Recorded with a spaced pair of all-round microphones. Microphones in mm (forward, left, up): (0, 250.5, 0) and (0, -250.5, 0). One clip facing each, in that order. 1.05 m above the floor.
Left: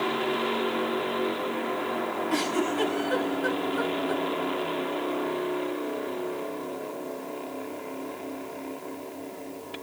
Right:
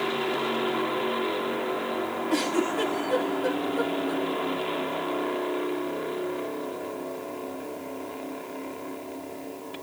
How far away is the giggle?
About 1.4 m.